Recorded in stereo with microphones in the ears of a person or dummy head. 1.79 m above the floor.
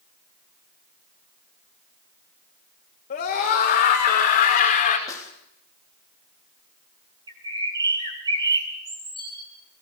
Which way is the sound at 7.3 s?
20° right (ahead or behind).